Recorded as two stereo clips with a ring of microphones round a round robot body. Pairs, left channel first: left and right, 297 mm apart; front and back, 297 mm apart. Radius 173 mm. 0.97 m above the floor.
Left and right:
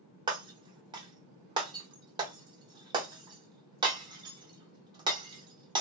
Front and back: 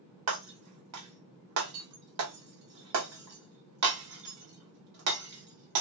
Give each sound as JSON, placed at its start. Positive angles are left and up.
{"t": 0.3, "sound": "breaking glass", "azimuth_deg": -160, "distance_m": 0.7}